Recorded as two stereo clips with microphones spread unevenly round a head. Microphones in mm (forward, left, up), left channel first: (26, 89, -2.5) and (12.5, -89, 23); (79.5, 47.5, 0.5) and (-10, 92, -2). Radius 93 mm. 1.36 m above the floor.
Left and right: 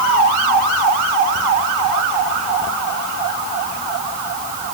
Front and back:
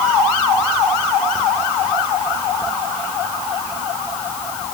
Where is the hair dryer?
I don't hear a hair dryer.